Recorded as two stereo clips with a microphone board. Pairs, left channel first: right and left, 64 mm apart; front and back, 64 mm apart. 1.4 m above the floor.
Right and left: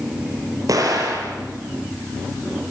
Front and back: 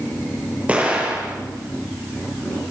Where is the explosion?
110° left, 5 m.